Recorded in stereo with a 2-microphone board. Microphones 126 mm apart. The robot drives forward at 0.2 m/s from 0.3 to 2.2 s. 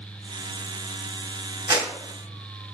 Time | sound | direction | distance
1.7 | a clap | 25° right (ahead or behind) | 1.2 m